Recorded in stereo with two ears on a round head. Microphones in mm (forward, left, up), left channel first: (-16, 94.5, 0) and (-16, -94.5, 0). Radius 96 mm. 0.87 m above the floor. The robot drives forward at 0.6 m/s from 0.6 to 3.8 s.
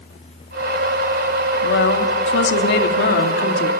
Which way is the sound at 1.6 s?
65° left (ahead or behind).